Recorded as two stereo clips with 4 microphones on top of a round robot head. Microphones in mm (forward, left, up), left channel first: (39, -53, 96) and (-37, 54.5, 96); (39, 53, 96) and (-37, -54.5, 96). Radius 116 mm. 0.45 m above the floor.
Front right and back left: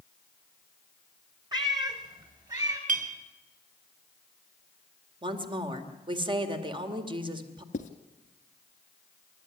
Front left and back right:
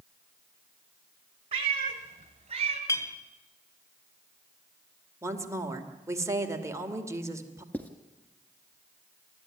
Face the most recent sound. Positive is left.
turn(degrees=-25)